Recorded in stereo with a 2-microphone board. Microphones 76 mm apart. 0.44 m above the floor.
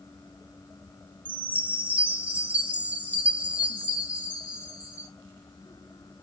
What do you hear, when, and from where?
1.2 s a chime: 20° right (ahead or behind), 0.9 m